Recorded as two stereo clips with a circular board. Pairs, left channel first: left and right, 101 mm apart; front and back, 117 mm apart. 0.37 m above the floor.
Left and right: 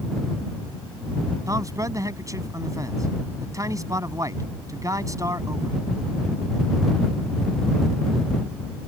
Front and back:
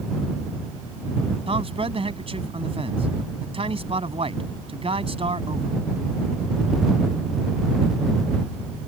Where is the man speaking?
145° right.